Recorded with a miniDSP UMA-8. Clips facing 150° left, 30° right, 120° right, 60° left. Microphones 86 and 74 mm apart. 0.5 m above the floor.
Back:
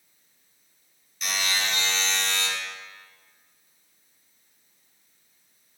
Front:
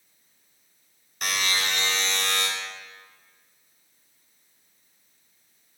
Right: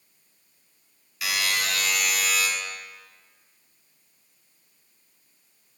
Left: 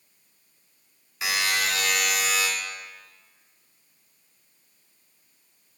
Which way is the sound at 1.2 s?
Straight ahead.